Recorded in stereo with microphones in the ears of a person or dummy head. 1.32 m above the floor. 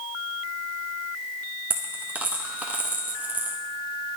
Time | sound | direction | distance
1.7 | a dropped coin | 10° right (ahead or behind) | 0.6 m